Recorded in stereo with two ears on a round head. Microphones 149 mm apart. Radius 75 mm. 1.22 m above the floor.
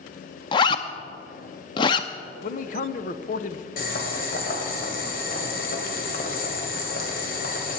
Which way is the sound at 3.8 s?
60° left (ahead or behind).